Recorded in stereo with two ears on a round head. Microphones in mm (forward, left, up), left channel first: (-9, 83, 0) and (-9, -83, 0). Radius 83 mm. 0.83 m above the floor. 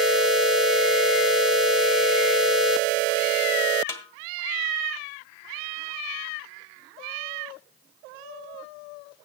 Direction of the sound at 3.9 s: 15° left (ahead or behind).